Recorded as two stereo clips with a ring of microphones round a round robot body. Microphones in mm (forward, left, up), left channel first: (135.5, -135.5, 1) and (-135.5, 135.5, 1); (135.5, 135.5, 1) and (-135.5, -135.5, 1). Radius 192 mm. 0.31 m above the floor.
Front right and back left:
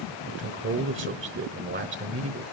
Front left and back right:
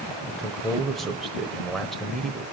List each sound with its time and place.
0.3 s a man speaking: 135° left, 1.0 m